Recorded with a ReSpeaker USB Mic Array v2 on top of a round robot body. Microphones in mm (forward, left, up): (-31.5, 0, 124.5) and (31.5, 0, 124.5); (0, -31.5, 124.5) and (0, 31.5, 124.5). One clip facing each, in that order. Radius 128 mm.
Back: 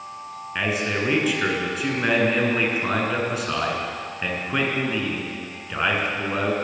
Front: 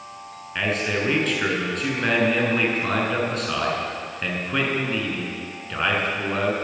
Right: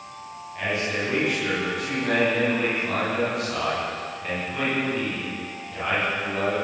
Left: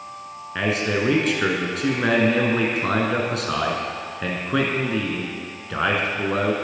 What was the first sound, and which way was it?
A man speaking, 95° left.